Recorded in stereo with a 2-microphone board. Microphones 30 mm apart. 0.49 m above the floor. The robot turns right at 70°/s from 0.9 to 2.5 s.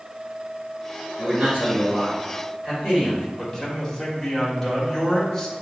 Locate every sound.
1.2 s a man speaking: 90° right, 2 m; by 3.3 s straight ahead, 2 m
3.4 s a man speaking: 10° left (ahead or behind), 1.4 m